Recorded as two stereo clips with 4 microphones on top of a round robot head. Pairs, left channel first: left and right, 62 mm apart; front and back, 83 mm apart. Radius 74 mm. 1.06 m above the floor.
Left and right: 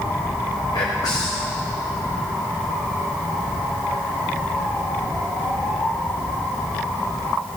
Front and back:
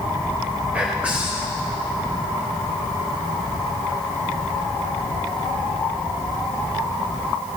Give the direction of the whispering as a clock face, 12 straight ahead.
8 o'clock.